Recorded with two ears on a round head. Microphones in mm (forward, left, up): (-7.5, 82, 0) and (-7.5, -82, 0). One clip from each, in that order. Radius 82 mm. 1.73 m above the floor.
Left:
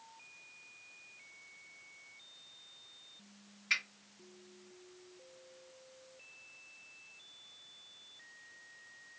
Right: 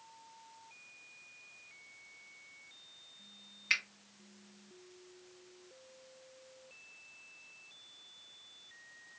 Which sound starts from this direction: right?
A finger snap, at 3.7 s.